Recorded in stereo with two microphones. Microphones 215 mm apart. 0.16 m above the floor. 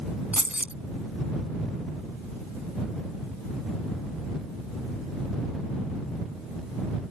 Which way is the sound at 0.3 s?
5° right (ahead or behind).